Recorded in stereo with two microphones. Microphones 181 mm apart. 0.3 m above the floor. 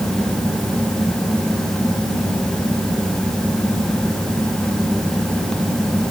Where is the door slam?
I don't hear a door slam.